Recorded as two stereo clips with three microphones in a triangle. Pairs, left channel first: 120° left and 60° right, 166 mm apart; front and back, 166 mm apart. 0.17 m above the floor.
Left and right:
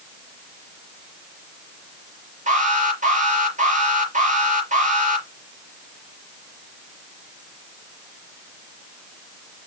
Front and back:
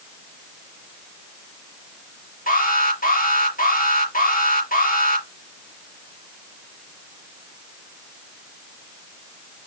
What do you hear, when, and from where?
2.5 s an alarm: 25° right, 5.5 m